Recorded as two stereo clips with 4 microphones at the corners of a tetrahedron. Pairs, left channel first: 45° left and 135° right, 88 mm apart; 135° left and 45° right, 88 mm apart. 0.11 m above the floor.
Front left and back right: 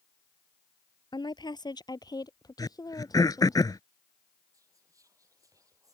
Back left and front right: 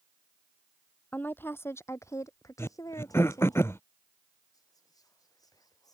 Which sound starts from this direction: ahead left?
A woman speaking, at 1.1 s.